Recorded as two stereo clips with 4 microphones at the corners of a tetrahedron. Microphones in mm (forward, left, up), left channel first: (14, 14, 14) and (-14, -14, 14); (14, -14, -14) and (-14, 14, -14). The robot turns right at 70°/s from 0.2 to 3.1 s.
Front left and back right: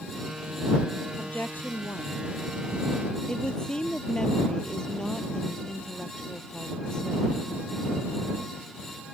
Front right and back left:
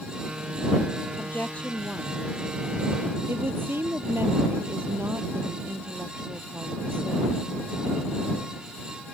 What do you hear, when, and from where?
1.2 s a woman speaking: 20° right; by 7.3 s 115° left